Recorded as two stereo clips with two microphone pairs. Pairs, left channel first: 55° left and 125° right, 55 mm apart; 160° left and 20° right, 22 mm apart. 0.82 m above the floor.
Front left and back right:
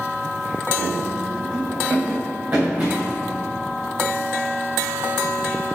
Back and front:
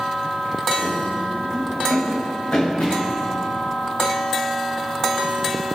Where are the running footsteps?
170° right, 3.5 m; by 3.2 s 175° left, 5.5 m.